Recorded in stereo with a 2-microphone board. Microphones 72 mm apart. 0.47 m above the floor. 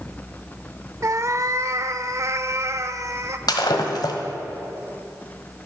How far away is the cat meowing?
About 0.6 m.